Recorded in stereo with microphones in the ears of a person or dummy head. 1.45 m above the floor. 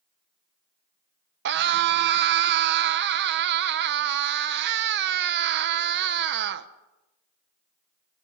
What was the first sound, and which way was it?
A scream, 60° right (ahead or behind).